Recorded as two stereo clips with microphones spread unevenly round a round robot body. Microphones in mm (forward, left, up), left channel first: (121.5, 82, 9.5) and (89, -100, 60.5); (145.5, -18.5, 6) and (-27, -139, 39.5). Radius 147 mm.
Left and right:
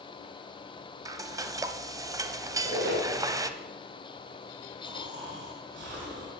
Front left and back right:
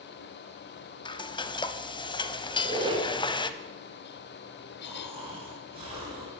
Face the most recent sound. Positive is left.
turn(degrees=-80)